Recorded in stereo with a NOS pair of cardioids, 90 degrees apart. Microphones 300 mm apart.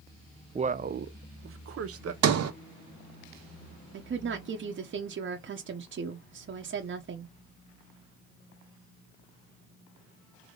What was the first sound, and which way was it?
A man speaking, 20° right.